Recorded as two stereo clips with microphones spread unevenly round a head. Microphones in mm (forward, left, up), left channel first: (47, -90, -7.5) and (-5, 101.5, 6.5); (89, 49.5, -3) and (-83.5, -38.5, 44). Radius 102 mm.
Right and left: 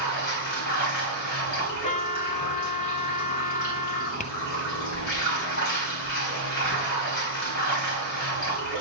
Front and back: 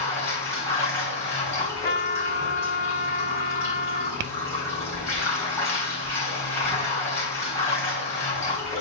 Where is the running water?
50° right, 5 m.